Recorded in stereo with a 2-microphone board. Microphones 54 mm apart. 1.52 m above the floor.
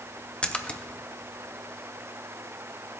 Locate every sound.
0.4 s a splash: 20° left (ahead or behind), 0.6 m